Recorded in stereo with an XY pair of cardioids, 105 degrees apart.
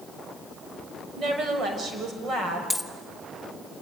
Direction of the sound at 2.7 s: Straight ahead.